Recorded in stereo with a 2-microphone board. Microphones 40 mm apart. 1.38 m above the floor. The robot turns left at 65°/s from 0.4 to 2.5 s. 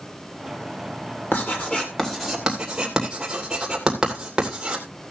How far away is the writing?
About 3 m.